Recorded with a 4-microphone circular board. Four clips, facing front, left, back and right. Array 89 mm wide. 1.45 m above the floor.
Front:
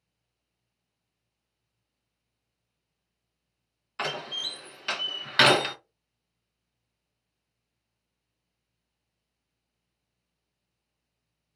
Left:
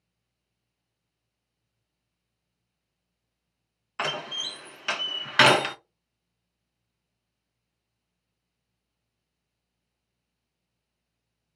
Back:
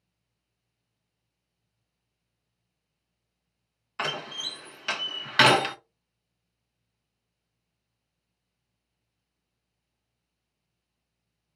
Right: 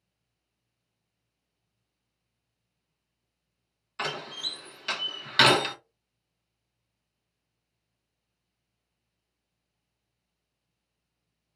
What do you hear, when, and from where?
4.0 s a door slam: 105° left, 0.7 m